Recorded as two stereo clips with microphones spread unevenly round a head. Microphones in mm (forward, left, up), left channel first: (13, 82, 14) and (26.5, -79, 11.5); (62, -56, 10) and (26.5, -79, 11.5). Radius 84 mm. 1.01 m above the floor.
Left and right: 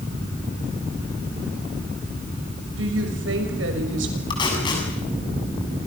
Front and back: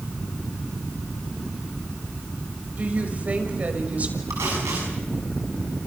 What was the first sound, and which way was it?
A woman speaking, 95° right.